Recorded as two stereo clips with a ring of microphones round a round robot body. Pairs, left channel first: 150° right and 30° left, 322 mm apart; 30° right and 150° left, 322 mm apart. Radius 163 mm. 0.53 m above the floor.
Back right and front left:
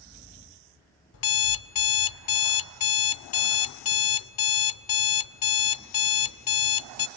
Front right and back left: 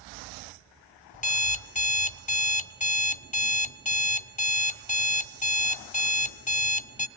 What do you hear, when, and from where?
1.1 s an alarm clock: 100° right, 0.9 m